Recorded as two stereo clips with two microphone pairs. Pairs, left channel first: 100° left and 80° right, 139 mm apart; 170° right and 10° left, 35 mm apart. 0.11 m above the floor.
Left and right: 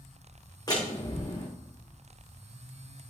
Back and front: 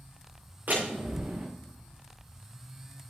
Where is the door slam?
40° left, 6.5 m.